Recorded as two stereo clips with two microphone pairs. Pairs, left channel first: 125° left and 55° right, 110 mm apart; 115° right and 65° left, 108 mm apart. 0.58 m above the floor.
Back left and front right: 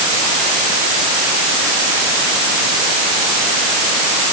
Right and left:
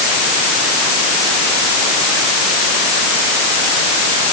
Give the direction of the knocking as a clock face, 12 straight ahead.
No knocking in this recording.